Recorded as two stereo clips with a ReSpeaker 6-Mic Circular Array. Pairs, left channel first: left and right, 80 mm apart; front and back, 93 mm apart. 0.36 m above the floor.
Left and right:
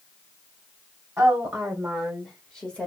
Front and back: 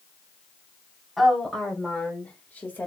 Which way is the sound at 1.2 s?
85° right.